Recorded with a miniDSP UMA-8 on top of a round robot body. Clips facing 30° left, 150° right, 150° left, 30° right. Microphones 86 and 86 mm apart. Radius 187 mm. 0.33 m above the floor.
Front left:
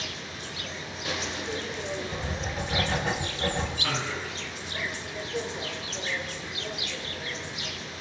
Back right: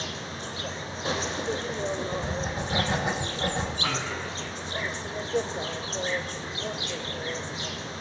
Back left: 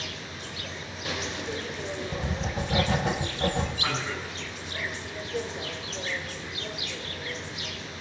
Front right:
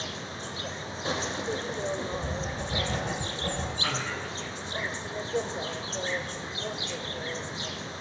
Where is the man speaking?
140° right, 8 m.